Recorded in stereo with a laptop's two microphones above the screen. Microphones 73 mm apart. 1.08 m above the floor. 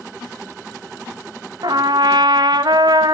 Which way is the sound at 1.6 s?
70° right (ahead or behind).